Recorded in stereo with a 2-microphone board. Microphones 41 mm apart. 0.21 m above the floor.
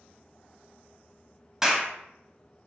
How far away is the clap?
About 0.7 m.